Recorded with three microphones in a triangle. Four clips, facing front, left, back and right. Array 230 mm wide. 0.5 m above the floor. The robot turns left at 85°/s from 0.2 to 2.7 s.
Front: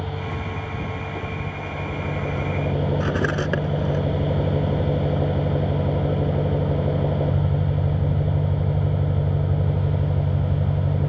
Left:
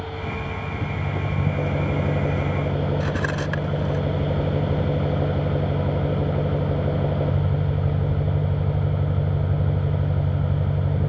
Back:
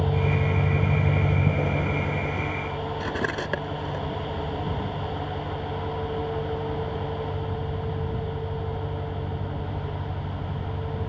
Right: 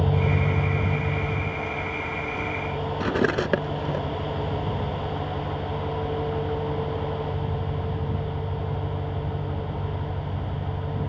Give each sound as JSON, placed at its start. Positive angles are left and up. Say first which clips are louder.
{"t": 0.0, "sound": "an engine running", "louder": "right 6 dB, back 4 dB", "azimuth_deg": -115}
{"t": 3.0, "sound": "cutlery clinking", "louder": "right 2 dB, front 5 dB", "azimuth_deg": -70}